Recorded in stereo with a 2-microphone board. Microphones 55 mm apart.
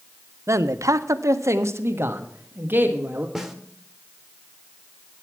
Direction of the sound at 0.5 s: 60° right (ahead or behind).